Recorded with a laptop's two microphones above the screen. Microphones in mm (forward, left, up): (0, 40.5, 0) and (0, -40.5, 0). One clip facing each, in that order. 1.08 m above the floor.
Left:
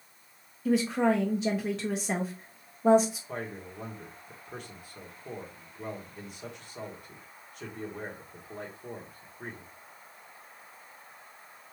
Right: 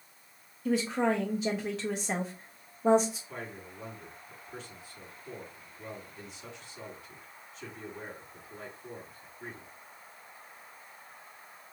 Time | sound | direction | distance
0.7 | a woman speaking | 5° right (ahead or behind) | 0.6 m
3.3 | a man speaking | 55° left (ahead or behind) | 1.4 m